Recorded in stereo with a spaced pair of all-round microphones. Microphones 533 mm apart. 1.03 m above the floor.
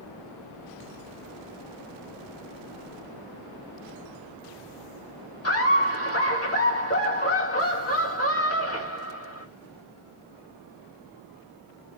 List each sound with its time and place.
5.4 s laughter: 25° left (ahead or behind), 1.0 m